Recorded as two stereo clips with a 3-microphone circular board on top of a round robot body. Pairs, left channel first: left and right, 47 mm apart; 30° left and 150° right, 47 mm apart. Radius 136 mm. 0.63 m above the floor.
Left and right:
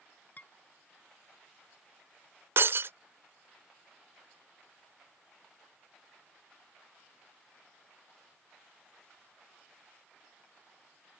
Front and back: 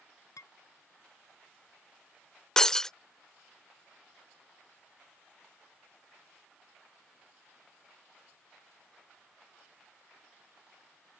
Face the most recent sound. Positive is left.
turn(degrees=-45)